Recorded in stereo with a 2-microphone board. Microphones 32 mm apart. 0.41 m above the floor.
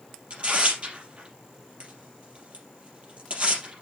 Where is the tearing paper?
45° right (ahead or behind), 4 m.